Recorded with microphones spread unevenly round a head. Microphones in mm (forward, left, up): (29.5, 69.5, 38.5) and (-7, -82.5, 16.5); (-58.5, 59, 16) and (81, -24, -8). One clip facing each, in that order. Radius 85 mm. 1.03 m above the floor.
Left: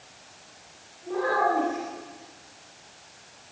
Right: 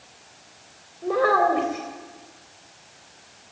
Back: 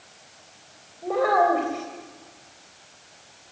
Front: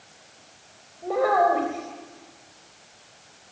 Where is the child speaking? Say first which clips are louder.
Right 5 dB, even; 120° right, 3.5 m.